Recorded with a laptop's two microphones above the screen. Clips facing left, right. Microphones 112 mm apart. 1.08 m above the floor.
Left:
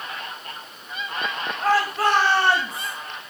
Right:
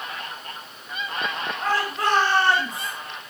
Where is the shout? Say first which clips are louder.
Left 4 dB; 5° left (ahead or behind), 5 m; by 2.9 s 10° left (ahead or behind), 5 m.